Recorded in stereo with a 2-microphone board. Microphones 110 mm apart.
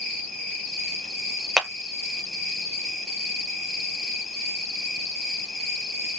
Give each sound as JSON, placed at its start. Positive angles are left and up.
{"t": 0.0, "sound": "an insect", "side_deg": 5, "distance_m": 2.5}
{"t": 1.6, "sound": "a clap", "side_deg": -5, "distance_m": 0.7}